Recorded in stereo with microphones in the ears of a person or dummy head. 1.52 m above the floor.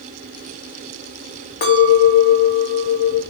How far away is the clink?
About 0.7 m.